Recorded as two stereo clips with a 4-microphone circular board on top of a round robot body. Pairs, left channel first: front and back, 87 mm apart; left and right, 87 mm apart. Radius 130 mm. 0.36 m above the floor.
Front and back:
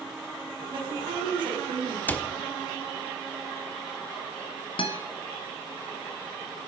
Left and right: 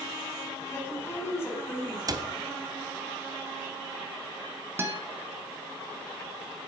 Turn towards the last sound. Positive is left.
turn(degrees=-25)